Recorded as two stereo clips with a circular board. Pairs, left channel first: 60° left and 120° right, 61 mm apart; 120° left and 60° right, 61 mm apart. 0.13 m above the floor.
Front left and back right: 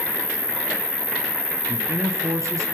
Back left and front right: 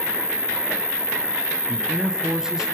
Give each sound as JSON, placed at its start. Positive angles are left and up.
{"t": 0.0, "sound": "an insect", "azimuth_deg": 15, "distance_m": 3.0}
{"t": 1.7, "sound": "a man speaking", "azimuth_deg": -140, "distance_m": 3.0}